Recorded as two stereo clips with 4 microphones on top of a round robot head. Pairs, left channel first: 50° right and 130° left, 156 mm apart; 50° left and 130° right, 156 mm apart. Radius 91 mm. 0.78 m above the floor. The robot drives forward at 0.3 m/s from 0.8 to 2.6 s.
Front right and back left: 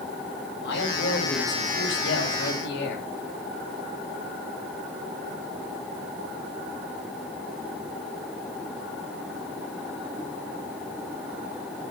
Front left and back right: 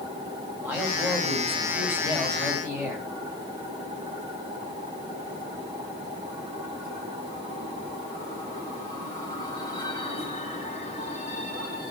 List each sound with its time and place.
0.6 s a man speaking: 50° right, 5.5 m; by 3.1 s 55° right, 5.5 m